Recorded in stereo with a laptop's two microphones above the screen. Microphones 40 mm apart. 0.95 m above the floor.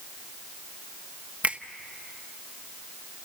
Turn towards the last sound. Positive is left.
turn(degrees=-40)  # may be behind; listen again after turning